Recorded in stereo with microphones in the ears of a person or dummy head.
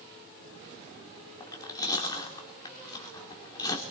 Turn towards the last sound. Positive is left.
turn(degrees=20)  # may be behind; listen again after turning